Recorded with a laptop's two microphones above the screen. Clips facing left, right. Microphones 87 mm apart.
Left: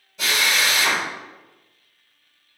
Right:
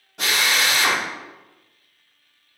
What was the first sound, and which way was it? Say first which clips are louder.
A drill: even; 65° right (ahead or behind).